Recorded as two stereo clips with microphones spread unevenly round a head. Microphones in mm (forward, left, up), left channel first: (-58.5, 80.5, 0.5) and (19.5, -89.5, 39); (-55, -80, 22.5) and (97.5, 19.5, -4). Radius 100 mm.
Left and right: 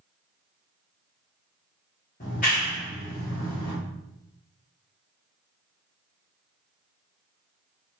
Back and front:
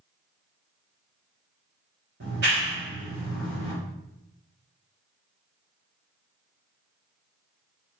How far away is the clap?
About 1.3 m.